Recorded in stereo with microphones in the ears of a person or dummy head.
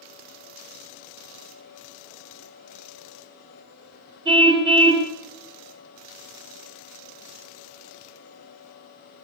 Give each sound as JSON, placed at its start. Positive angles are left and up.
{"t": 4.2, "sound": "a car horn", "side_deg": -30, "distance_m": 3.0}